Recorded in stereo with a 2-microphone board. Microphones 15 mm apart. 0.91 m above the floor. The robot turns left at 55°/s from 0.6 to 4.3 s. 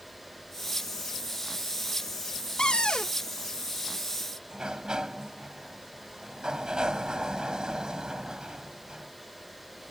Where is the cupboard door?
105° left; by 3.1 s 75° left.